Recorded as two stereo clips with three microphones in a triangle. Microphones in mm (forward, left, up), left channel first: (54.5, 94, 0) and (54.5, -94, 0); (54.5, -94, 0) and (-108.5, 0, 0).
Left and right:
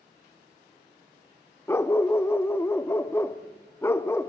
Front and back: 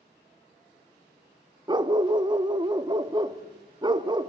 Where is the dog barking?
145° left, 0.6 m.